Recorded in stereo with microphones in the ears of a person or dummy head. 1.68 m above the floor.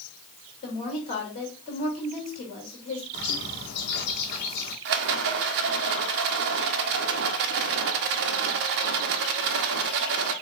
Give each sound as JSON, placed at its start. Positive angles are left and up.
{"t": 0.6, "sound": "a woman speaking", "side_deg": 35, "distance_m": 2.5}
{"t": 3.1, "sound": "a bird", "side_deg": 50, "distance_m": 1.6}
{"t": 4.8, "sound": "a rattle", "side_deg": -55, "distance_m": 0.5}